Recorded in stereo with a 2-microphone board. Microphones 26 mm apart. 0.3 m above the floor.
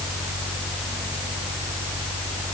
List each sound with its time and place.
Only background noise.